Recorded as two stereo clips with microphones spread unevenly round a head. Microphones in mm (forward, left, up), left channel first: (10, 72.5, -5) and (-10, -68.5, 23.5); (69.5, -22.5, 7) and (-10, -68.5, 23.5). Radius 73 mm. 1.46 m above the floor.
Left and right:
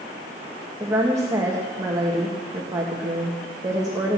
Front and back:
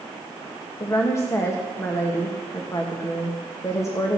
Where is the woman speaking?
30° right, 1.7 m.